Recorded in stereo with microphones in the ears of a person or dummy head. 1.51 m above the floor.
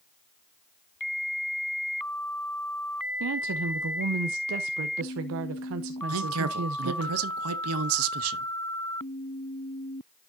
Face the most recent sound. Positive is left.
turn(degrees=-75)  # may be behind; listen again after turning